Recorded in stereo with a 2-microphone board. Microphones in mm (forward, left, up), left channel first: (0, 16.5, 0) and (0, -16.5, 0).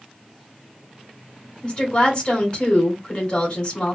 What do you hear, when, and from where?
1.6 s a woman speaking: 30° left (ahead or behind), 1.7 m